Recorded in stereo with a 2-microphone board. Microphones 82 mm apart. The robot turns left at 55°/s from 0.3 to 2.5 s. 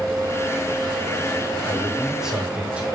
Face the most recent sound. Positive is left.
turn(degrees=-15)  # may be behind; listen again after turning